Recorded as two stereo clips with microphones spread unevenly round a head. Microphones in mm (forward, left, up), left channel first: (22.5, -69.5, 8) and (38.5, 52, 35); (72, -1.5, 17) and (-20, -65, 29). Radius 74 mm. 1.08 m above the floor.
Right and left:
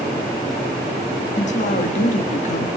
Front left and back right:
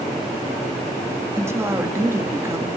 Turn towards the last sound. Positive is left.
turn(degrees=-80)